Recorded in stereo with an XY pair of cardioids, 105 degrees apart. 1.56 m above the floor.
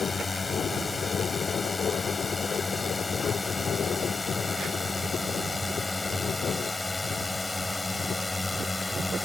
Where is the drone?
25° left; by 9.2 s 10° left.